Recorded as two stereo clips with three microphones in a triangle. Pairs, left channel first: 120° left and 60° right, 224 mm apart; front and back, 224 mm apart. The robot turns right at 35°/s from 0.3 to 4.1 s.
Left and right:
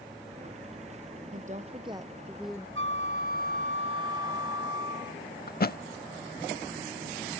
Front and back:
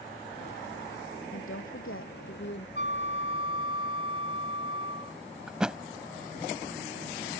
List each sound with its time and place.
1.3 s a woman speaking: 10° right; by 2.6 s 35° left
2.8 s a flute: 35° right; by 5.2 s 10° left
5.5 s a thud: 95° left